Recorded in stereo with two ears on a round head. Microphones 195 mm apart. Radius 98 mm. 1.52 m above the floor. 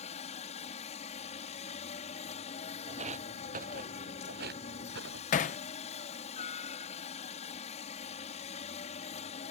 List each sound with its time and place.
0.0 s a helicopter: 30° left (ahead or behind)
2.9 s footsteps: 30° right (ahead or behind); by 5.2 s 55° right (ahead or behind)
5.3 s hammering: 35° left (ahead or behind)